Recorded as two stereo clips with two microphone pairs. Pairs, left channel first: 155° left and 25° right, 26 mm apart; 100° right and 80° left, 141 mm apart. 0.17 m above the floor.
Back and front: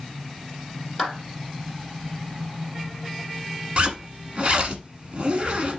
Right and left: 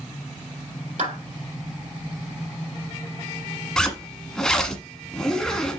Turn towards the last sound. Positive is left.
turn(degrees=-15)